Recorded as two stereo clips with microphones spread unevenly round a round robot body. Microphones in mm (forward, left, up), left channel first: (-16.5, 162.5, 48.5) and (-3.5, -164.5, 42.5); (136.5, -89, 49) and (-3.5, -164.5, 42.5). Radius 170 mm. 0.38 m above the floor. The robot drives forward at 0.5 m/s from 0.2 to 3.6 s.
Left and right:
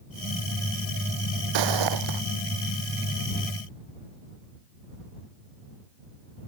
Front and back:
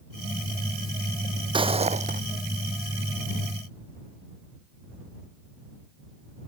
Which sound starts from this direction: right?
Footsteps, at 1.5 s.